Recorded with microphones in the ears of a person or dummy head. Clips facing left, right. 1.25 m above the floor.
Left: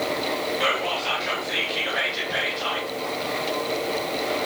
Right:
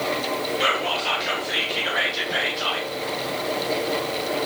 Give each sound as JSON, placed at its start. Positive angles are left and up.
{"t": 0.6, "sound": "whispering", "side_deg": 0, "distance_m": 1.2}